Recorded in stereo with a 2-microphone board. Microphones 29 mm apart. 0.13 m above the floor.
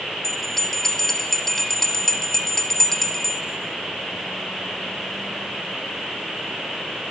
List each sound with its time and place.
0.2 s a bell: 15° left (ahead or behind), 0.7 m